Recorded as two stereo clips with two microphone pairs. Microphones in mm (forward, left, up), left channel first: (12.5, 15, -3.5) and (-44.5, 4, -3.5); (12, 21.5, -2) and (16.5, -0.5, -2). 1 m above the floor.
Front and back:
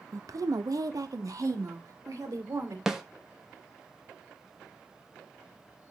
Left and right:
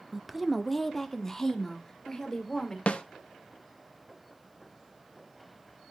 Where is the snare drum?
110° left, 1.0 m.